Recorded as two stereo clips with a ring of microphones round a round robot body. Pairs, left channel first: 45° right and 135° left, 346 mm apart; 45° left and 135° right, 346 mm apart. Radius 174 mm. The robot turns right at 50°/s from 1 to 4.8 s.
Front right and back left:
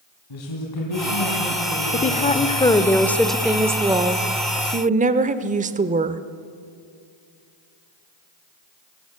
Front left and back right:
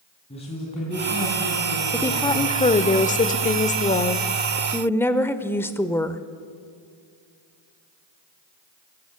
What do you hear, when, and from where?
0.3 s a man speaking: 25° right, 3.5 m; by 2.9 s 70° left, 3.5 m
1.9 s a woman speaking: 25° right, 0.8 m; by 6.2 s 120° left, 0.8 m